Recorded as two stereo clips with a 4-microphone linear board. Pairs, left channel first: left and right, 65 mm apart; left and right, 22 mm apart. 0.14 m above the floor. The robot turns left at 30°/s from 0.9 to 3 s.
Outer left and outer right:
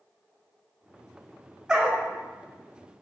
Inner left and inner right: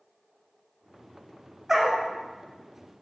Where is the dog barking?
5° right (ahead or behind), 1.7 m; by 2.0 s 15° right (ahead or behind), 1.7 m.